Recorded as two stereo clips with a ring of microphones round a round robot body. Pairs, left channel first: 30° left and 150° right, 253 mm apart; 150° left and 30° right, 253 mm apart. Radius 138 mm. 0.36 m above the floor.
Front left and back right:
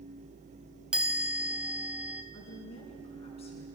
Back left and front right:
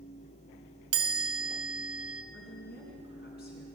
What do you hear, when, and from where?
0.9 s a chime: 65° right, 1.1 m
2.3 s a woman speaking: 100° left, 4.5 m